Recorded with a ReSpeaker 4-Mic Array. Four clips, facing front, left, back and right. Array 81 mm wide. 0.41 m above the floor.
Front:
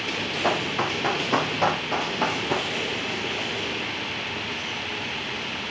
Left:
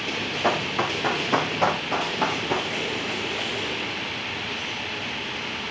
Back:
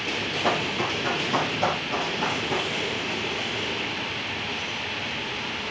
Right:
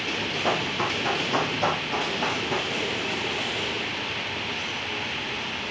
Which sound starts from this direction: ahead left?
Running footsteps, at 0.4 s.